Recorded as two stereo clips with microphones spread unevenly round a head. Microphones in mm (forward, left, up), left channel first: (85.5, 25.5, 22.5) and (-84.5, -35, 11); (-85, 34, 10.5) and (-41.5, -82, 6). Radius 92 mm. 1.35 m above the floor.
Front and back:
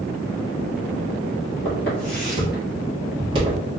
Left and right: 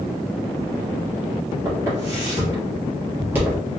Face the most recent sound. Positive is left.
turn(degrees=-135)